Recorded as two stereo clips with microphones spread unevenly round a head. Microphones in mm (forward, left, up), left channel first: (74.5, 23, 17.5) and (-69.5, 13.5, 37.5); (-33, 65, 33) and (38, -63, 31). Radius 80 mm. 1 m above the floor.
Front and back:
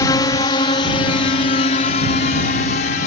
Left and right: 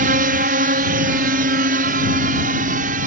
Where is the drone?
60° right; by 3.1 s 30° right.